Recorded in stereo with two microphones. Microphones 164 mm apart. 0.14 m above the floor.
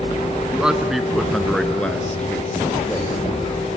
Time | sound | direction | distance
0.5 | a man speaking | 5° right (ahead or behind) | 1.2 m